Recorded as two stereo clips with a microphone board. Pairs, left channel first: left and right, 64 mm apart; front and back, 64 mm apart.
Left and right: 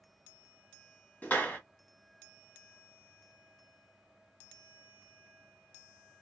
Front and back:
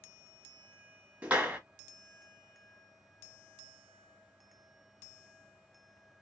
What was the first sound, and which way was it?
A clap, 130° left.